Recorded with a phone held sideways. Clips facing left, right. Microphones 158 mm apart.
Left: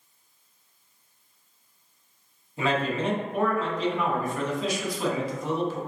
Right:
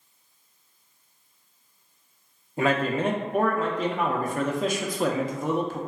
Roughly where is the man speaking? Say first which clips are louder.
Right 2 dB; right.